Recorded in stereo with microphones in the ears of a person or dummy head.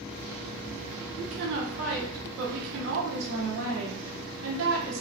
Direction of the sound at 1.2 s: 85° right.